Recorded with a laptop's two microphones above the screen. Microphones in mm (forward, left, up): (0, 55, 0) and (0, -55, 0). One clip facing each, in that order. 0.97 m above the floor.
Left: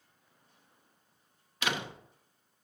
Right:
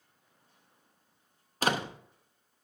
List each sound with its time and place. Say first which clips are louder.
1.6 s a door slam: right 5 dB; 35° right (ahead or behind), 0.8 m